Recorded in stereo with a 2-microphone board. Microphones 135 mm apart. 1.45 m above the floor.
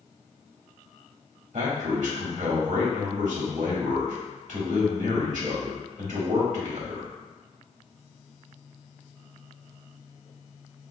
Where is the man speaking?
75° right (ahead or behind), 1.2 m.